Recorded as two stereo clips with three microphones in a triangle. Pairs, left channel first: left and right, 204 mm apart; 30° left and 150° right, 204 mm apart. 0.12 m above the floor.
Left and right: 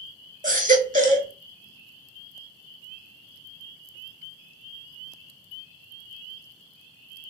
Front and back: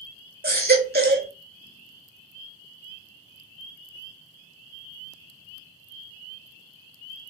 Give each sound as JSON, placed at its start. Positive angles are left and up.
{"t": 0.4, "sound": "a baby crying", "azimuth_deg": -130, "distance_m": 0.6}